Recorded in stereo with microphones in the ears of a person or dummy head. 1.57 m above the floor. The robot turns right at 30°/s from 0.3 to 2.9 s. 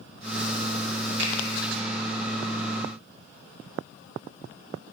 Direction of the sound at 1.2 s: 65° right (ahead or behind).